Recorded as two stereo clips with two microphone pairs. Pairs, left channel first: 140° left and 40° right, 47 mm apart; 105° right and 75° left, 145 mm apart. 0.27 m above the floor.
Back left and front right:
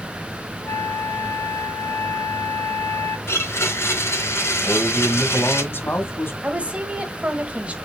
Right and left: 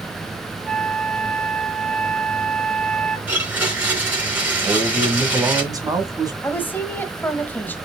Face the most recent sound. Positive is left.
turn(degrees=-40)